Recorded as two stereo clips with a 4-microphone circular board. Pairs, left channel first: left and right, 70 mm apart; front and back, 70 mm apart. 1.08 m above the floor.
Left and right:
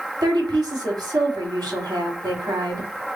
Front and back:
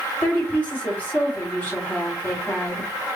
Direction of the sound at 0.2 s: 65° right.